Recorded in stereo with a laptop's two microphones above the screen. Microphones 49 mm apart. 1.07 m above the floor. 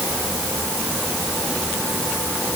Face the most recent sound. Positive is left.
No sound to turn to.